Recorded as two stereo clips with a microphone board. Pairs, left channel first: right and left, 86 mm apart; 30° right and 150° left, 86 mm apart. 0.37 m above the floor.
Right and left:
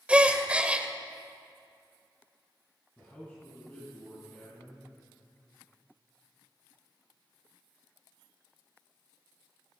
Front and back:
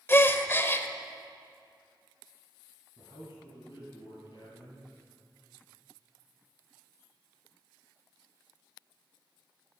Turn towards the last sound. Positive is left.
turn(degrees=-25)